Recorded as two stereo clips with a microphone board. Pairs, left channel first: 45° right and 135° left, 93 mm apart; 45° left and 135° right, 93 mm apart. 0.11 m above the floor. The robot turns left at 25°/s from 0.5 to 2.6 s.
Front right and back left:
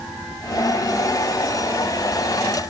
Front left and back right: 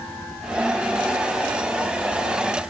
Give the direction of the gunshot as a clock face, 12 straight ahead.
No gunshot in this recording.